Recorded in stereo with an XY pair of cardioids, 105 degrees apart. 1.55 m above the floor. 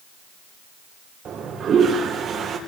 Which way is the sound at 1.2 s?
55° right.